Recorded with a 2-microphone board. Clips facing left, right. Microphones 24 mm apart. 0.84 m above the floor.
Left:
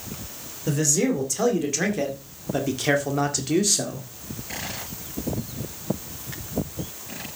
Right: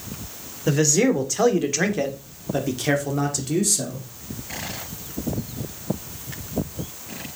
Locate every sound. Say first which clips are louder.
0.7 s a man speaking: right 4 dB; 30° right (ahead or behind), 2.5 m; by 4.0 s 30° left (ahead or behind), 2.0 m